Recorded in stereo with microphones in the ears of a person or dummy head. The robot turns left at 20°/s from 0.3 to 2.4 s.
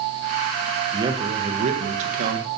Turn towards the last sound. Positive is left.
turn(degrees=-50)  # may be behind; listen again after turning